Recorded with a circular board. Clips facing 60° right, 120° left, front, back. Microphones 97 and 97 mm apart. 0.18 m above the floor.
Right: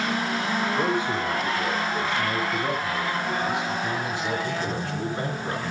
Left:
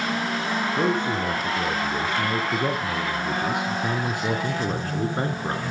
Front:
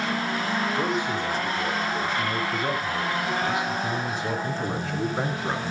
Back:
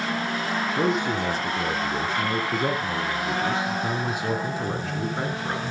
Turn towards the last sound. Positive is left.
turn(degrees=70)